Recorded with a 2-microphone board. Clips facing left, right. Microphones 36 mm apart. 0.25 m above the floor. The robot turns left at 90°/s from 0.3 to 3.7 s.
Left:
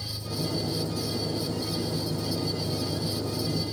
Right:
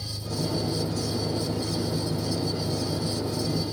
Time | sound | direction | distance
0.0 | an engine running | 10° left | ?